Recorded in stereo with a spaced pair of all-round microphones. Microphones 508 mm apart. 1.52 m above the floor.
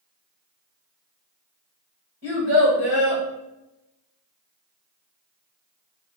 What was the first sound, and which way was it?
A child speaking, 45° left (ahead or behind).